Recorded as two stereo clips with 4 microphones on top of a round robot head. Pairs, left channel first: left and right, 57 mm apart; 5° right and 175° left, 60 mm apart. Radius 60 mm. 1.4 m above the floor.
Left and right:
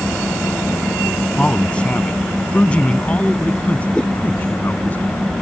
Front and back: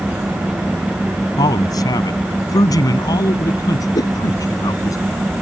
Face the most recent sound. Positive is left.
turn(degrees=15)